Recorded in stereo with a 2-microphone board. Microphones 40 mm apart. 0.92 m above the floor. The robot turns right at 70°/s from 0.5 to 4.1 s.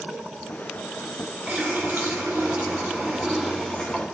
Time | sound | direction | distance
1.5 | a running tap | 145° right | 2.0 m